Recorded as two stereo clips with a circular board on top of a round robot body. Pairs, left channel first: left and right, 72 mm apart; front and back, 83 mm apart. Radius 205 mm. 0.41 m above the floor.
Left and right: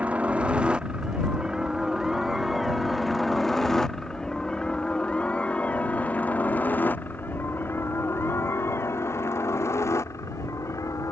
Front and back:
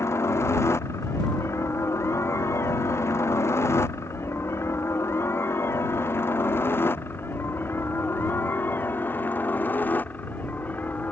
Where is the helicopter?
30° right; by 11.1 s 65° left.